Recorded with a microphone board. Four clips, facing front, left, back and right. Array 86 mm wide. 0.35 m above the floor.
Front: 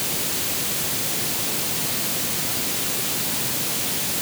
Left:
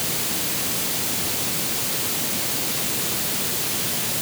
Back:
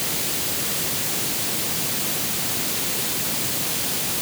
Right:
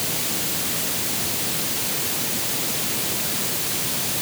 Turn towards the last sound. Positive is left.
No sound to turn to.